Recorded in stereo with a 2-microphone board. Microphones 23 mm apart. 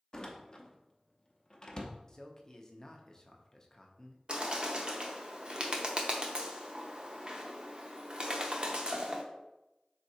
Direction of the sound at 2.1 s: 25° left (ahead or behind).